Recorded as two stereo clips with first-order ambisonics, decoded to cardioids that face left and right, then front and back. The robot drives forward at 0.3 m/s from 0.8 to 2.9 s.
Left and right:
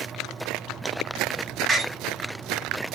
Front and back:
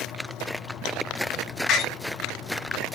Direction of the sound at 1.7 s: 30° right.